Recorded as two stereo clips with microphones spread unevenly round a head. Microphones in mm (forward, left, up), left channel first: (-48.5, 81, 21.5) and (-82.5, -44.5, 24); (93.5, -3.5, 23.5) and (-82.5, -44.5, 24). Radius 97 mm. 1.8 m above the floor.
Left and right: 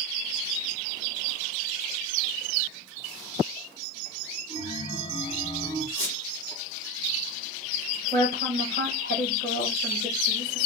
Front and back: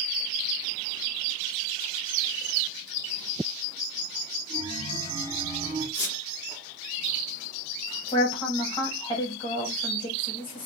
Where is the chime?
95° left, 1.5 m.